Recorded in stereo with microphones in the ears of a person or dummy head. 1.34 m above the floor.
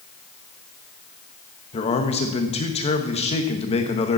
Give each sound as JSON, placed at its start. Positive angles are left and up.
{"t": 1.7, "sound": "a man speaking", "side_deg": 30, "distance_m": 1.3}